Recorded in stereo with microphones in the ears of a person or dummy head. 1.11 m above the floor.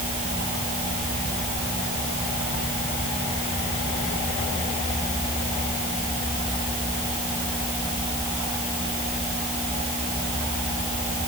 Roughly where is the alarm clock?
I don't hear an alarm clock.